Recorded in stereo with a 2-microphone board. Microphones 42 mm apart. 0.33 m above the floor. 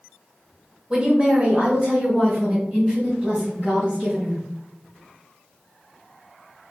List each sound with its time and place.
0.9 s a woman speaking: 25° right (ahead or behind), 1.1 m; by 4.4 s 30° right (ahead or behind), 3.5 m